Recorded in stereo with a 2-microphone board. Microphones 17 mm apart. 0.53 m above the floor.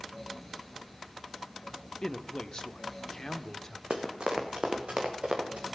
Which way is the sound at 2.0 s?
45° left (ahead or behind).